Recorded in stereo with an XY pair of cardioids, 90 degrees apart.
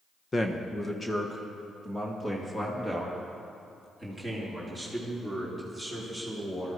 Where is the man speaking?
30° left, 1.1 m; by 6.8 s 15° left, 5 m.